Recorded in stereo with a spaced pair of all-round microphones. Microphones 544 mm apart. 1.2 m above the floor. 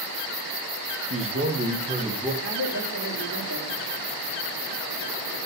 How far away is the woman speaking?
About 2.5 m.